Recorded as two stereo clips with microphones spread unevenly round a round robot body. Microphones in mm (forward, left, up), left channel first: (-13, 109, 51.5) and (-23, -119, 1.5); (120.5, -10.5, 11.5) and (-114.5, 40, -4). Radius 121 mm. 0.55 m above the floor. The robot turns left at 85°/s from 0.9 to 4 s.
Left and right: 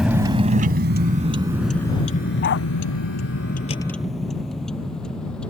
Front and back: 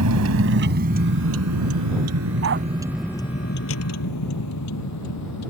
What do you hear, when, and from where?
0.0 s a vehicle: straight behind; by 5.5 s straight ahead
2.4 s a dog barking: 135° left; by 2.7 s 115° left